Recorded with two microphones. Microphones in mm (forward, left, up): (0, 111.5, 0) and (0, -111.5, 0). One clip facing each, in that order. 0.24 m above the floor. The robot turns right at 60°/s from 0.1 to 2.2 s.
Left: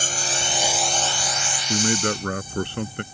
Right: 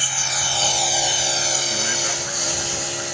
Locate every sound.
0.0 s a lawn mower: 135° left; by 3.1 s 100° right
1.7 s a man speaking: 45° left; by 3.0 s 80° left